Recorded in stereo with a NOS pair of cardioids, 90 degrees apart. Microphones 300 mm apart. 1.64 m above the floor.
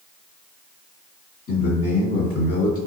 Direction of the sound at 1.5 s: 50° left.